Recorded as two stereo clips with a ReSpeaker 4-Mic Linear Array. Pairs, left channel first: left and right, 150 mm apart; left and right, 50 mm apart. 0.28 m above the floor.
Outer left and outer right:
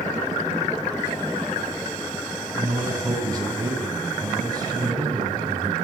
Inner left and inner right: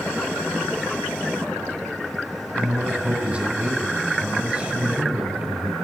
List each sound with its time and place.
2.5 s a man speaking: 30° right (ahead or behind), 3 m